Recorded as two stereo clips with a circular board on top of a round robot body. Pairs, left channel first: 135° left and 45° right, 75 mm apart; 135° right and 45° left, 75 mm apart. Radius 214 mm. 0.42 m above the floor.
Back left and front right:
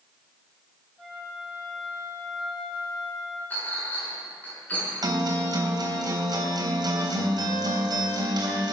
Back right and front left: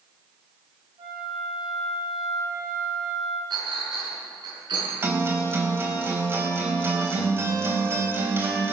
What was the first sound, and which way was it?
A flute, 55° left.